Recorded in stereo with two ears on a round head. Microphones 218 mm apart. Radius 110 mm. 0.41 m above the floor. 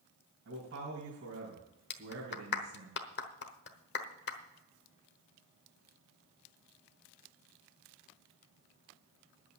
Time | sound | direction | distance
0.5 | a man speaking | 50° right (ahead or behind) | 3.5 m
1.9 | a clap | 50° left (ahead or behind) | 1.2 m